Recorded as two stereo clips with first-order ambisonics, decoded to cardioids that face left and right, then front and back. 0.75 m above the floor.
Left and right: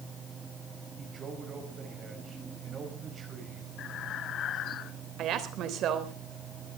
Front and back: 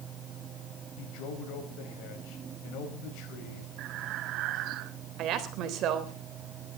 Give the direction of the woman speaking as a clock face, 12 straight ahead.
5 o'clock.